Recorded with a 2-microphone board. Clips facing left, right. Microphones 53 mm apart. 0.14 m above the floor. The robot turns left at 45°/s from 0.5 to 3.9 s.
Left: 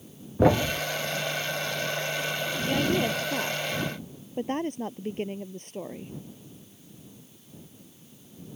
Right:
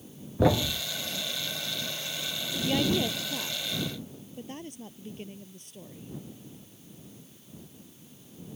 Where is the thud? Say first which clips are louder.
Left 3 dB; 10° left (ahead or behind); by 0.8 s 5° right (ahead or behind).